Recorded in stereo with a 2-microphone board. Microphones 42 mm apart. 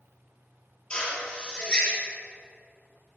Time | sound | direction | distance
0.9 | a drill | 25° left (ahead or behind) | 6 m